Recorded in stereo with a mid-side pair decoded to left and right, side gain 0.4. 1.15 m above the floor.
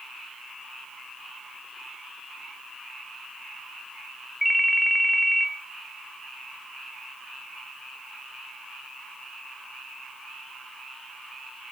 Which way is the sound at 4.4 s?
Straight ahead.